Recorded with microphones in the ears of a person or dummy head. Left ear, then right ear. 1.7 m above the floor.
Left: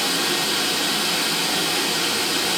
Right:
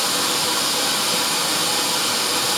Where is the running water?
50° right (ahead or behind), 1.9 m.